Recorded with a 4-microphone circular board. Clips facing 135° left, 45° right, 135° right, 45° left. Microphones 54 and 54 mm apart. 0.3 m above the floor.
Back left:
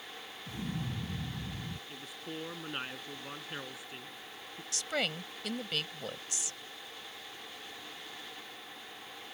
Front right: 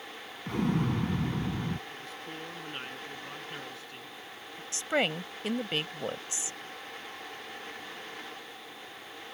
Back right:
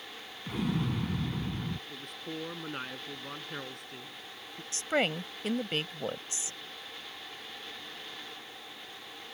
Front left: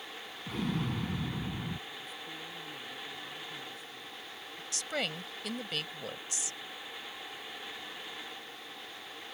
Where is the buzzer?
I don't hear a buzzer.